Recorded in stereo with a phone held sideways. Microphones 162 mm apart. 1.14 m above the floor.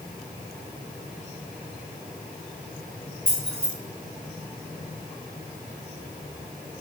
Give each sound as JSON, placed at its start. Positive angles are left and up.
{"t": 3.3, "sound": "keys jangling", "side_deg": 5, "distance_m": 2.0}